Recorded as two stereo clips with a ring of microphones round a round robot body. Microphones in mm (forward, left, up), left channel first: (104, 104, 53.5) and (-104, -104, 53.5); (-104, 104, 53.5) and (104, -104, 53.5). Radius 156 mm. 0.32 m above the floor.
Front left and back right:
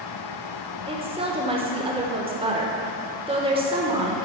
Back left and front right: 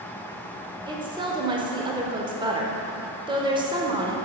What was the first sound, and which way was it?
A woman speaking, 95° right.